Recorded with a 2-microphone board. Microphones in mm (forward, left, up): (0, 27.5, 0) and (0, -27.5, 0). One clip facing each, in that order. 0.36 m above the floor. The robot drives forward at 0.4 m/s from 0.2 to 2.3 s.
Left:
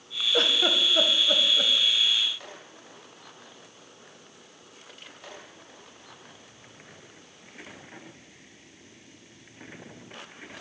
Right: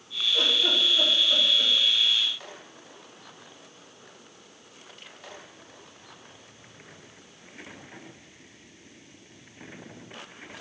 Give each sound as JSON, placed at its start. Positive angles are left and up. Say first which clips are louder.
{"t": 0.3, "sound": "a giggle", "louder": "left 2 dB", "side_deg": 60, "distance_m": 0.8}